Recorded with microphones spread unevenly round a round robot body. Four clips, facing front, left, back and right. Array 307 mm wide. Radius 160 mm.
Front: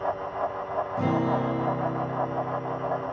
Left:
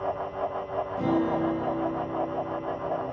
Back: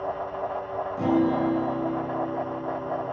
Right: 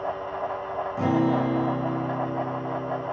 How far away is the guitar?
About 1.8 m.